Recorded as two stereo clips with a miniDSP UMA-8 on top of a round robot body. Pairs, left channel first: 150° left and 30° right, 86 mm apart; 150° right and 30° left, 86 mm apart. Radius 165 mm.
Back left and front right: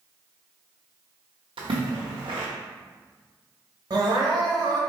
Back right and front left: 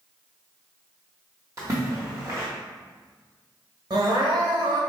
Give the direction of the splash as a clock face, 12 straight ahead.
1 o'clock.